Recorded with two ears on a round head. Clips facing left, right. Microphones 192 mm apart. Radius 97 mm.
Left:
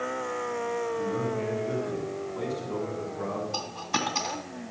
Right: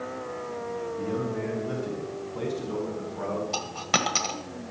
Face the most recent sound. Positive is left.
turn(degrees=-85)